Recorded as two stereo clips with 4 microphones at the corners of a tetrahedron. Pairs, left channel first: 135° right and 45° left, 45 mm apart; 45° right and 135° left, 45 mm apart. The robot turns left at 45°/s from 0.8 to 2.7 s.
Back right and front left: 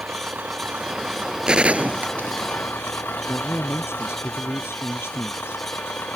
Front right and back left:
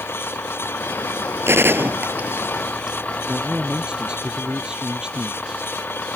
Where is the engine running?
10° right; by 6.2 s 95° right.